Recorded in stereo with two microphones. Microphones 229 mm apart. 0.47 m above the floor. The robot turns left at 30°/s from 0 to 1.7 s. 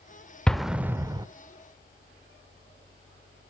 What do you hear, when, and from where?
0.5 s an explosion: 5° left (ahead or behind), 0.5 m; by 1.3 s 20° right (ahead or behind), 0.5 m